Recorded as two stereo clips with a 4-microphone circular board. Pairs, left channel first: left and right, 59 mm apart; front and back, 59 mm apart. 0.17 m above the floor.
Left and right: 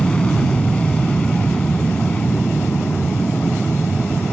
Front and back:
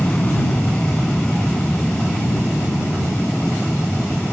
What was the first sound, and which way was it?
An aircraft, 35° left.